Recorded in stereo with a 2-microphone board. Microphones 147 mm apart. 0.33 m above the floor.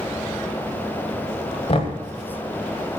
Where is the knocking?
45° left (ahead or behind), 1.5 m.